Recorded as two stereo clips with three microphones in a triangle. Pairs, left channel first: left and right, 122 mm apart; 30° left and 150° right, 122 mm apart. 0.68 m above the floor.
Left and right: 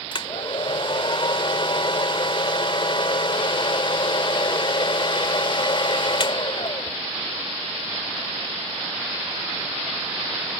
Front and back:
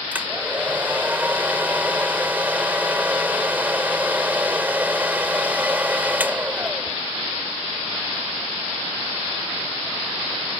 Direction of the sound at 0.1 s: 135° left.